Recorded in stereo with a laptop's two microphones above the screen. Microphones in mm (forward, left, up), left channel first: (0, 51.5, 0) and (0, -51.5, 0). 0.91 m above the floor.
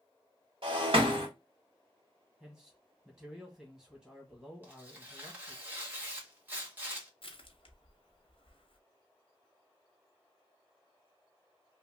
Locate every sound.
0.6 s breaking glass: 60° right (ahead or behind), 1.5 m
2.4 s a man speaking: 5° right (ahead or behind), 1.1 m
4.6 s tearing paper: 20° right (ahead or behind), 1.2 m
7.2 s crushing: 60° left (ahead or behind), 0.8 m